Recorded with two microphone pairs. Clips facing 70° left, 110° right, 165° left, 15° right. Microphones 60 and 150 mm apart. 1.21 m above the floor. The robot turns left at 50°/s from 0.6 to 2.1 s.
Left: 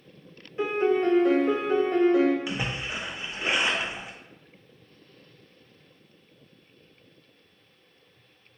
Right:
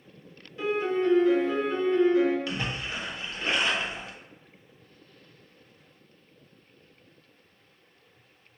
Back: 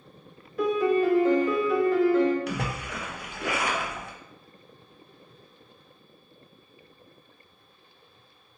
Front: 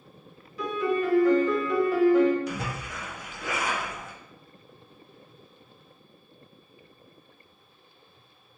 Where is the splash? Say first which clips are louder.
Left 1 dB, back 2 dB; 145° left, 0.7 m.